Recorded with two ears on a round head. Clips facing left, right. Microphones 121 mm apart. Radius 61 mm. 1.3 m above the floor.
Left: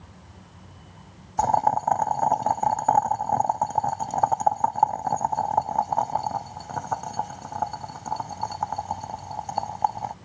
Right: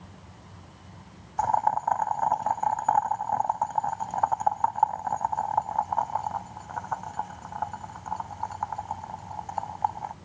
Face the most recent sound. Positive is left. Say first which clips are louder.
# left 3 dB
turn(degrees=40)  # may be behind; listen again after turning